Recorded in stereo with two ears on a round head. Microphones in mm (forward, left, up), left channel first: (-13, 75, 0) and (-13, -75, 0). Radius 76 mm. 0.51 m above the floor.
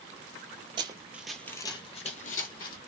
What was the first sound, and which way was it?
Running footsteps, 30° right (ahead or behind).